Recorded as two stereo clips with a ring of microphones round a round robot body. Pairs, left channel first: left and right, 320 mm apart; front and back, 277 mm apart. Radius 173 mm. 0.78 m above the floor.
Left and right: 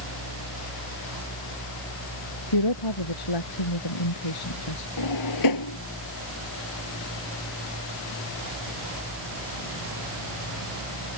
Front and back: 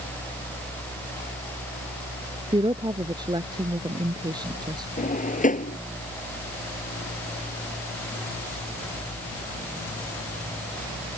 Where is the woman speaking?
105° left.